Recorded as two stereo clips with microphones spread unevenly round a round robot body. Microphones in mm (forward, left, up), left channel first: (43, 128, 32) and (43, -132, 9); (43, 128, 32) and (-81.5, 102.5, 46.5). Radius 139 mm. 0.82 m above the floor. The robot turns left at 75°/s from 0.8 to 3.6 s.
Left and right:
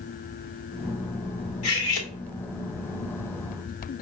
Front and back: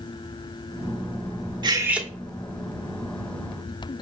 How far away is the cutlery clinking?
About 1.0 m.